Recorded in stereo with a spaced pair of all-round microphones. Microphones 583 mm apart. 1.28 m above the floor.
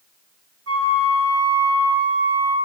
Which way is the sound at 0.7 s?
80° right.